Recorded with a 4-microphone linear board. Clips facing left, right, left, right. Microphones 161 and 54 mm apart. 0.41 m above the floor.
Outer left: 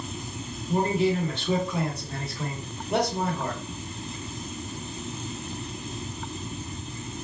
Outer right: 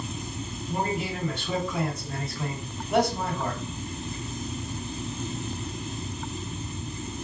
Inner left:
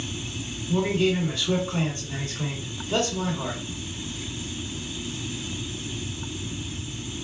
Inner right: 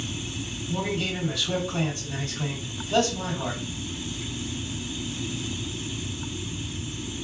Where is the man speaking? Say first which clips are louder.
Outer left 6 dB, inner left 6 dB; 35° left (ahead or behind), 1.7 m.